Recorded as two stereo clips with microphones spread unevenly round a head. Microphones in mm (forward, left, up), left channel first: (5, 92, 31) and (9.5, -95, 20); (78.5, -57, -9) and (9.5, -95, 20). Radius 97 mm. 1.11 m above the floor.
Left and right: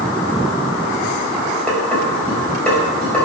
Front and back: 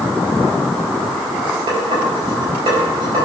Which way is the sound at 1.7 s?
175° left.